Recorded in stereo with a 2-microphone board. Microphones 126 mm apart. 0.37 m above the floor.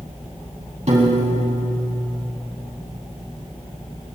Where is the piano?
60° right (ahead or behind), 3.5 m.